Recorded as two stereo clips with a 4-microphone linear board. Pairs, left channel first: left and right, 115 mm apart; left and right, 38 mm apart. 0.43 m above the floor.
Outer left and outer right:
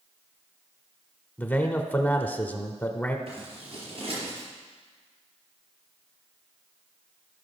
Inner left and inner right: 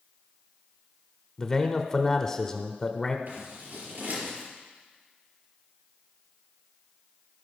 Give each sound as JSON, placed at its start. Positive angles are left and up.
{"t": 1.4, "sound": "a man speaking", "side_deg": 15, "distance_m": 1.1}
{"t": 3.3, "sound": "scissors", "side_deg": -50, "distance_m": 4.5}